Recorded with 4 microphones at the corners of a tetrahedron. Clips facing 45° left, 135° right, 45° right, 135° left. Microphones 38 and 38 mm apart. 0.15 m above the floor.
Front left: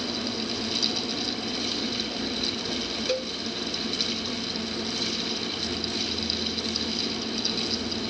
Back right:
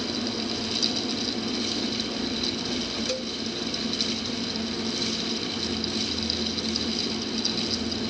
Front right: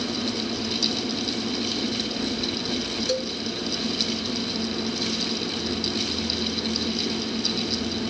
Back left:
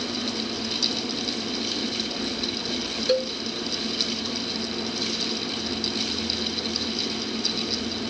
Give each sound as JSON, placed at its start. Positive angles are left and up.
{"t": 3.1, "sound": "a cowbell", "azimuth_deg": 110}